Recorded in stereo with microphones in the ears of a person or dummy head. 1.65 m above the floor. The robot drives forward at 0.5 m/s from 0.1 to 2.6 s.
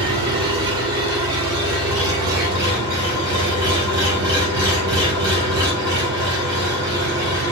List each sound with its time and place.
0.0 s an engine running: 25° right (ahead or behind), 4 m; by 7.5 s 20° right (ahead or behind), 5.5 m